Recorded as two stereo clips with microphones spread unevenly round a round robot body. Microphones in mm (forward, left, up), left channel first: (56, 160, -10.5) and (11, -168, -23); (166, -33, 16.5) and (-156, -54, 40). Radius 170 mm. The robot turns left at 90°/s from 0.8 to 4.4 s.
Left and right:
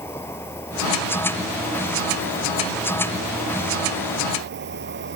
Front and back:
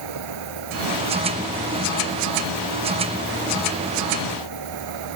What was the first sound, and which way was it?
An insect, 165° left.